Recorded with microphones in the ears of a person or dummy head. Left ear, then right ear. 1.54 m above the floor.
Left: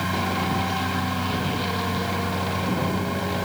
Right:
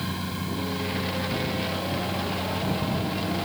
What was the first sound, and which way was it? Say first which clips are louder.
A machine running: left 8 dB; 30° left (ahead or behind).